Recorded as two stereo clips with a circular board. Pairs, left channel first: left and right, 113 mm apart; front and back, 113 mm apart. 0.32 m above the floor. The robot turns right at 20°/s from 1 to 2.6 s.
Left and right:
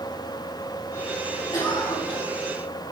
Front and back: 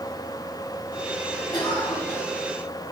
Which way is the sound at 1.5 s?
45° left.